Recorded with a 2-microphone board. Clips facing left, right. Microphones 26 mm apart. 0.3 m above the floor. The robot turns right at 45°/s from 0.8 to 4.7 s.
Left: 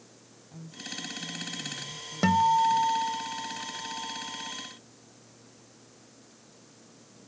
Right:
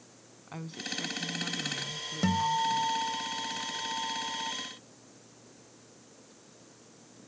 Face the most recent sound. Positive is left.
turn(degrees=-130)